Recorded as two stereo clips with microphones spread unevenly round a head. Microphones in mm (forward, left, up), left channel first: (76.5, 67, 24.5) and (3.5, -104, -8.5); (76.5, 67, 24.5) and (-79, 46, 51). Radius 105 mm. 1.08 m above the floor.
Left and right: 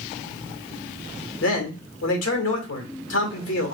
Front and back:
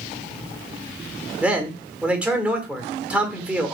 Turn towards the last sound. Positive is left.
turn(degrees=100)